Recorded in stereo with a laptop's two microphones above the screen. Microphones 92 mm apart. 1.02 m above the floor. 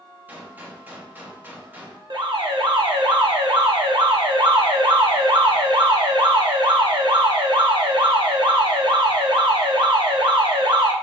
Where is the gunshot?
20° right (ahead or behind), 1.2 m.